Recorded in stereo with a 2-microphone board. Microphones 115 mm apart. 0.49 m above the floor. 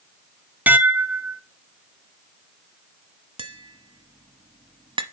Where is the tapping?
50° right (ahead or behind), 0.8 m.